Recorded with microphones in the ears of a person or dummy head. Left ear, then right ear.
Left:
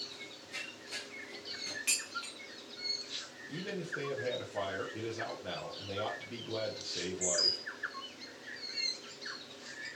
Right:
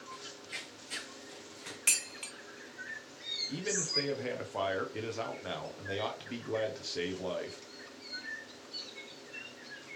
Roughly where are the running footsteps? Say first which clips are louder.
Right 1 dB; right.